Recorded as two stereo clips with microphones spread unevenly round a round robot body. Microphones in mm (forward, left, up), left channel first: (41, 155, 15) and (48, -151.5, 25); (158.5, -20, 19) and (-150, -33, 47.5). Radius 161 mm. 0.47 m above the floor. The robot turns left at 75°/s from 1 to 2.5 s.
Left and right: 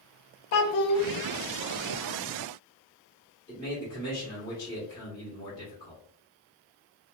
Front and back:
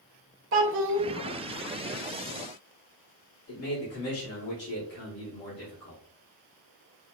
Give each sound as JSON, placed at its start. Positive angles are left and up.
{"t": 0.5, "sound": "a child speaking", "azimuth_deg": 130, "distance_m": 0.5}
{"t": 3.5, "sound": "a man speaking", "azimuth_deg": 20, "distance_m": 1.7}